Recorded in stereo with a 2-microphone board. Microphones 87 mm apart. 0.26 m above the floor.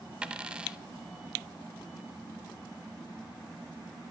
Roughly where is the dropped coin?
Centre.